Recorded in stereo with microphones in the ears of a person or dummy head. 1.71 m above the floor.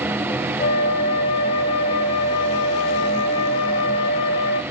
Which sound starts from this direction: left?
A flute, at 0.6 s.